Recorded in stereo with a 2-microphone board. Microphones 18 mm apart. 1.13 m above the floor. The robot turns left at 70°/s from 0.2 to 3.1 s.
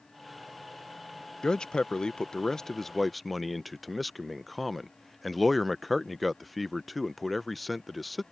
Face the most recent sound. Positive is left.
turn(degrees=5)  # may be behind; listen again after turning